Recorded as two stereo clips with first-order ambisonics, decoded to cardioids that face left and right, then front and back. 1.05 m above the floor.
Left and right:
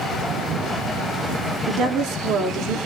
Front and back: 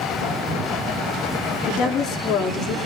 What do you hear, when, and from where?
1.7 s a woman speaking: 45° right, 3 m